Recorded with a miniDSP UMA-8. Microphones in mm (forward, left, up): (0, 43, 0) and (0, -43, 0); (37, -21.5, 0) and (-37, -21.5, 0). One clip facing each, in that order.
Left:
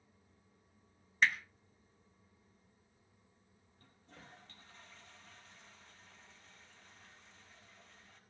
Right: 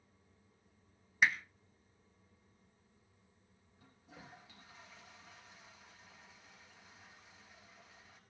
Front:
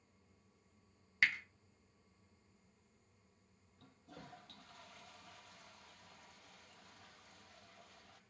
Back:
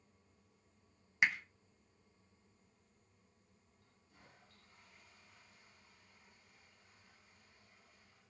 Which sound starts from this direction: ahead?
A toilet flushing, at 3.8 s.